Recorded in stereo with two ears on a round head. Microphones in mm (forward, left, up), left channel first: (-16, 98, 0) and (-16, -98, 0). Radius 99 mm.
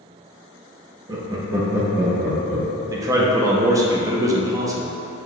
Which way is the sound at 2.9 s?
15° right (ahead or behind).